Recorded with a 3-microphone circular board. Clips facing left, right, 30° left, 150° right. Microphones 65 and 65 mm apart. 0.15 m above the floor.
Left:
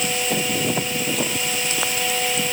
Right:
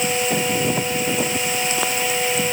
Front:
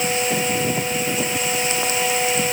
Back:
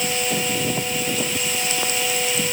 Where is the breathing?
I don't hear breathing.